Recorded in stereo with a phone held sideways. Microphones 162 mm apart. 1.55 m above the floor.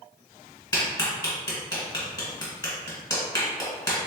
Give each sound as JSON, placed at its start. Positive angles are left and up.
{"t": 0.7, "sound": "a clap", "side_deg": 20, "distance_m": 1.6}